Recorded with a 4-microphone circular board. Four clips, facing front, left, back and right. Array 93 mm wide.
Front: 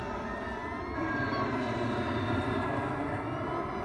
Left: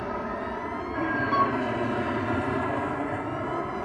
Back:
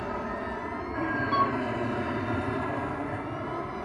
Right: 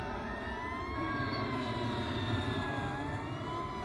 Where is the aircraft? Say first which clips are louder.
Left 8 dB, back 3 dB; 115° left; by 3.9 s 90° left.